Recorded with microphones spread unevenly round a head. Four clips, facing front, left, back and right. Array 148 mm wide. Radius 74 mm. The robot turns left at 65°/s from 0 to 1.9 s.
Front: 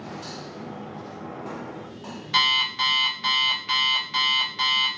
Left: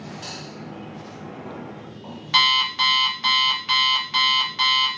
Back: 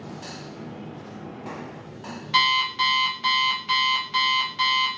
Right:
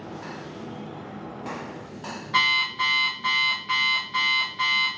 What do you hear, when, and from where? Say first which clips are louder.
2.3 s an alarm clock: left 3 dB, back 3 dB; 100° left, 0.9 m